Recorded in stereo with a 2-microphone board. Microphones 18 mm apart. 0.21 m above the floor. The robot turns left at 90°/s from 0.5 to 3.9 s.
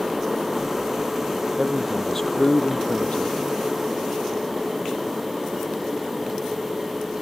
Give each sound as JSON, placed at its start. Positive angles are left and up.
{"t": 1.6, "sound": "a man speaking", "azimuth_deg": -145}